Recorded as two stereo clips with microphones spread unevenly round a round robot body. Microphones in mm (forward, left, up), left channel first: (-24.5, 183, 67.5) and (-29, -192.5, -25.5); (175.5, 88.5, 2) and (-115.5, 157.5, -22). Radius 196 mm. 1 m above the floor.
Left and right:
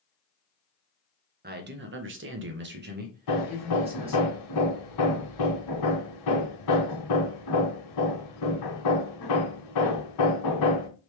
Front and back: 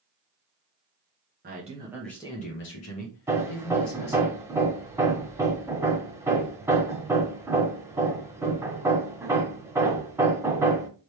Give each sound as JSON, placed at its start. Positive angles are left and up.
{"t": 1.4, "sound": "a man speaking", "azimuth_deg": -140, "distance_m": 0.9}
{"t": 3.3, "sound": "hammering", "azimuth_deg": 85, "distance_m": 1.2}